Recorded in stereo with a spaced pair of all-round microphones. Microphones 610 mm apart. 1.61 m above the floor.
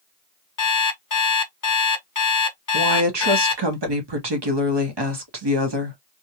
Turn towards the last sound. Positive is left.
turn(degrees=-45)  # may be behind; listen again after turning